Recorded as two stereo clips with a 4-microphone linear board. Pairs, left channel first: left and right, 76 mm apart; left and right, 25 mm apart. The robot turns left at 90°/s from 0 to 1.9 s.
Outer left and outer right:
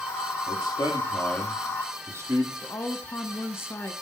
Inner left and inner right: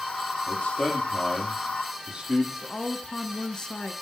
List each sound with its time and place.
0.5 s a man speaking: 90° left, 5.5 m; by 2.5 s 35° right, 5.5 m
2.6 s a woman speaking: 35° left (ahead or behind), 1.4 m